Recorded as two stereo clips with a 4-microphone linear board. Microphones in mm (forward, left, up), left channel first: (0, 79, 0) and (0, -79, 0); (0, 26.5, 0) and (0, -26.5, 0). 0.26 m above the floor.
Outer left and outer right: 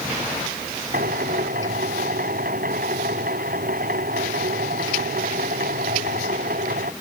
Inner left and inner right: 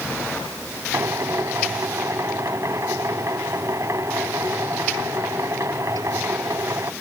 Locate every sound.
0.9 s a drill: 65° right (ahead or behind)